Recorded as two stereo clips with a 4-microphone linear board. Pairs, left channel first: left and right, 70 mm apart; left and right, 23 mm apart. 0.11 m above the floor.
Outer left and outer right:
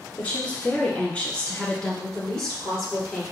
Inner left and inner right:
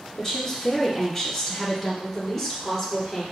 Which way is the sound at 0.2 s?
20° left (ahead or behind).